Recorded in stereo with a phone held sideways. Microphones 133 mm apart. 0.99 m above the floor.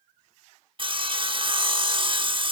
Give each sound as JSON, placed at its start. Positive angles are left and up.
{"t": 0.8, "sound": "sawing", "side_deg": -40, "distance_m": 1.0}